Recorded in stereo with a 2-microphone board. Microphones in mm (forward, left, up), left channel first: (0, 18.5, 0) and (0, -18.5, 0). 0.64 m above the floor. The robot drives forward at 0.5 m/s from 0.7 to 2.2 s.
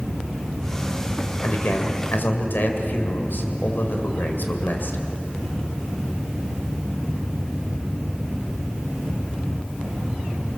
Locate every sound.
1.4 s a man speaking: 70° left (ahead or behind), 2.5 m; by 5.0 s 60° left (ahead or behind), 2.5 m